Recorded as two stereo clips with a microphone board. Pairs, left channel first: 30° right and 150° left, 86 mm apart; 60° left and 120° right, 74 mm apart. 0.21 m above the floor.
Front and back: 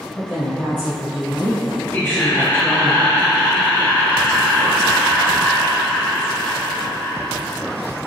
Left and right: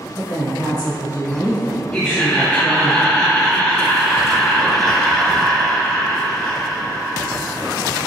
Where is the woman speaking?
145° right, 1.5 m.